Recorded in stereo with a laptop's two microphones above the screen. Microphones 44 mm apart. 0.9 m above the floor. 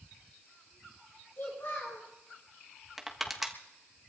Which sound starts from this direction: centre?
Crushing, at 3.0 s.